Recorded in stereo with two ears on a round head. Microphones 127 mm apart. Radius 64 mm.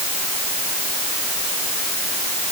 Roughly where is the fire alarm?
No fire alarm in this recording.